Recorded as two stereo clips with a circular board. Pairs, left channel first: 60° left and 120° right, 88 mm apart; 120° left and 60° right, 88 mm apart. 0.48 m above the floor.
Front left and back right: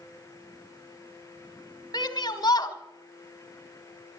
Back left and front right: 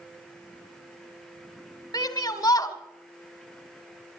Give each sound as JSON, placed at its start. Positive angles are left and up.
{"t": 1.9, "sound": "a shout", "azimuth_deg": 90, "distance_m": 1.8}